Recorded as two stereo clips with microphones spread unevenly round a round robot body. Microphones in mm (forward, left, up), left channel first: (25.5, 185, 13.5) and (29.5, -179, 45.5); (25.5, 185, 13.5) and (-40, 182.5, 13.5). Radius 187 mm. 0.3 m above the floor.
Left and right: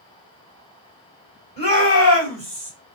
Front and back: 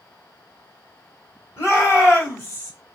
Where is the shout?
35° right, 1.9 m; by 2.7 s 70° right, 1.6 m.